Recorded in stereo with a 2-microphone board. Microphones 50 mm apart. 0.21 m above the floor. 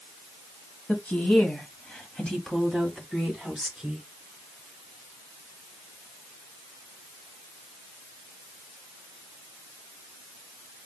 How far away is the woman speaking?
About 1.6 m.